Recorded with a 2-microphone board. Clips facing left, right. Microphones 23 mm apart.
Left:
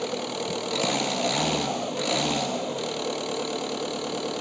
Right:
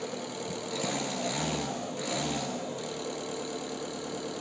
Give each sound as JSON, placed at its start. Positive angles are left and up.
{"t": 0.0, "sound": "an engine running", "side_deg": 40, "distance_m": 0.8}